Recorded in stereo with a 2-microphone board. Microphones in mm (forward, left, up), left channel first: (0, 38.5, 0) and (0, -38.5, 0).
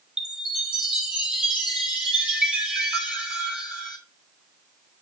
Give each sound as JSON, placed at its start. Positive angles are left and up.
{"t": 0.2, "sound": "a chime", "side_deg": -15, "distance_m": 2.5}